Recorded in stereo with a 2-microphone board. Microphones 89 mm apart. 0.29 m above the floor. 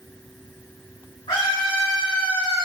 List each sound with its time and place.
1.3 s a scream: 70° left (ahead or behind), 4 m